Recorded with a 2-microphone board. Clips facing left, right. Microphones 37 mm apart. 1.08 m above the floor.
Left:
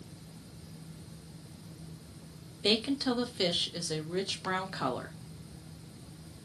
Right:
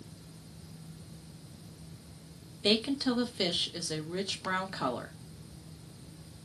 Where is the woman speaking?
5° left (ahead or behind), 0.6 m.